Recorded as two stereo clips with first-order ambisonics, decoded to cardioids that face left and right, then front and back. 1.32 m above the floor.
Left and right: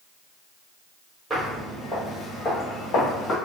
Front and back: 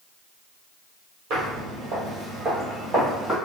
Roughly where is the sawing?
I don't hear sawing.